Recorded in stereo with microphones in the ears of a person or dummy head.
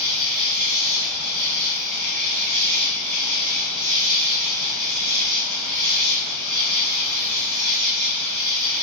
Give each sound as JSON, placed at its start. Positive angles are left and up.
{"t": 0.0, "sound": "an insect", "side_deg": 10, "distance_m": 0.8}